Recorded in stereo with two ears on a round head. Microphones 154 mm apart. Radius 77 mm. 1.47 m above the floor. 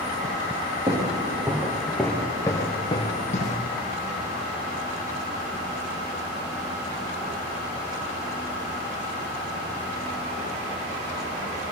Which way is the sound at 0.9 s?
20° right (ahead or behind).